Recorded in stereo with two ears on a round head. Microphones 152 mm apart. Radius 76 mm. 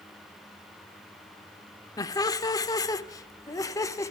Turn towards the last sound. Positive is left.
turn(degrees=20)  # may be behind; listen again after turning